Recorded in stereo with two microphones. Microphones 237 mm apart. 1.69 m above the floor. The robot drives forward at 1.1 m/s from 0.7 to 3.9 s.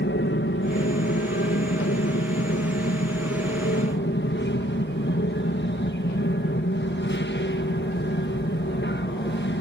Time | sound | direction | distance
0.0 | an aircraft | 55° left (ahead or behind) | ?